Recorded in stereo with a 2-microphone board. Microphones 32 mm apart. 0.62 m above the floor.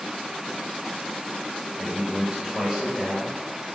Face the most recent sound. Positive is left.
turn(degrees=-5)  # may be behind; listen again after turning